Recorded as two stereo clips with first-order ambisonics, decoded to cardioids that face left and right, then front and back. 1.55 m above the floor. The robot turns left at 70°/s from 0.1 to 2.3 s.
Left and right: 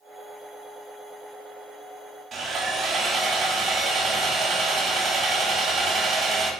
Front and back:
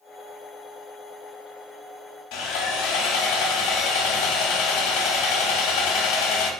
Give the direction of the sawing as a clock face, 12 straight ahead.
1 o'clock.